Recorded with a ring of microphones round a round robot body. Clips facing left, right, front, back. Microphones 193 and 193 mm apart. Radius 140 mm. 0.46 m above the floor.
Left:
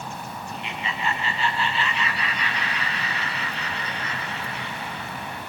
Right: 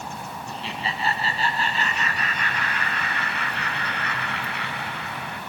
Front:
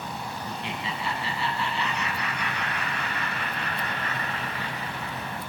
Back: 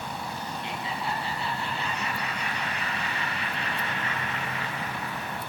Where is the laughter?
30° right, 4.5 m; by 5.4 s 70° right, 4.5 m.